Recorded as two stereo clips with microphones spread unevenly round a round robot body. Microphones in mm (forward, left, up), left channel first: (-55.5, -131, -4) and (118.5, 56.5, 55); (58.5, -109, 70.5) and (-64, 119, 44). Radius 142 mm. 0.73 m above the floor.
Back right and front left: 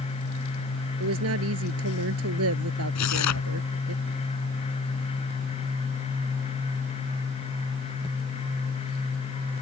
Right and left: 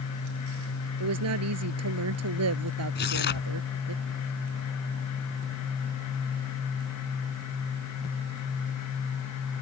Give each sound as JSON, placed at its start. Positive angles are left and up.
{"t": 1.0, "sound": "a woman speaking", "azimuth_deg": 90}
{"t": 3.0, "sound": "tearing paper", "azimuth_deg": -110}